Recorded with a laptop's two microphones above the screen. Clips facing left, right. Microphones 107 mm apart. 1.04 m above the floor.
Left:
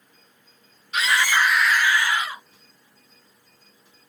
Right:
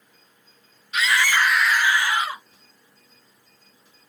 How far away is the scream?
About 0.9 m.